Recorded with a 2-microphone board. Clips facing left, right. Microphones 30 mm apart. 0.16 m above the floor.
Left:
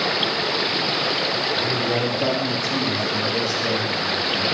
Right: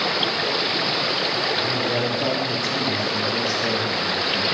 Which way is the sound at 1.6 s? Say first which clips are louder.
Left 1 dB; 15° left (ahead or behind).